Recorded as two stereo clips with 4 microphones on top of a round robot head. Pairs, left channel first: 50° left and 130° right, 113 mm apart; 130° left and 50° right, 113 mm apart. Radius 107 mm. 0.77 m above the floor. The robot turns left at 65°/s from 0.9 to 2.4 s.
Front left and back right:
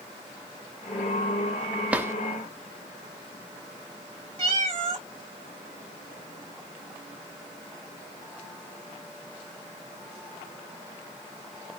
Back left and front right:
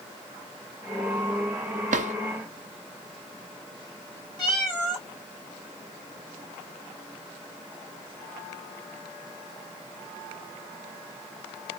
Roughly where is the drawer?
Ahead right.